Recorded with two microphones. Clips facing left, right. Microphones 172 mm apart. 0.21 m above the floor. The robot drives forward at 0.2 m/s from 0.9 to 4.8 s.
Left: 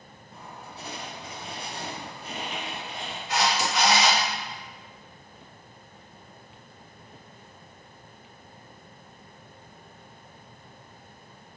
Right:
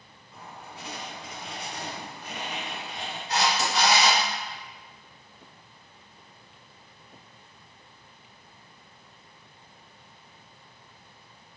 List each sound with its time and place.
0.3 s writing: 40° left (ahead or behind), 0.7 m; by 3.2 s 25° left (ahead or behind), 1.0 m
3.3 s a camera shutter: 35° right (ahead or behind), 1.0 m; by 4.2 s 30° right (ahead or behind), 1.1 m